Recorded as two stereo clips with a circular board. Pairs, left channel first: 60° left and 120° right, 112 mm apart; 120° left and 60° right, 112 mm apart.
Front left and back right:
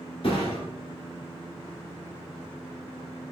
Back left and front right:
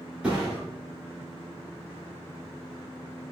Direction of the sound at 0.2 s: 20° left.